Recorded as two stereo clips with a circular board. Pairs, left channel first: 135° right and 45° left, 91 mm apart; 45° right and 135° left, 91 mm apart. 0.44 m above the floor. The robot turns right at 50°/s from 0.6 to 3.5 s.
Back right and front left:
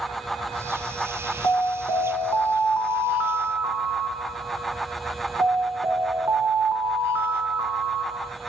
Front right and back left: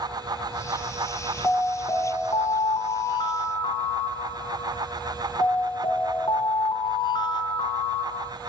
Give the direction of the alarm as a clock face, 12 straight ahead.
4 o'clock.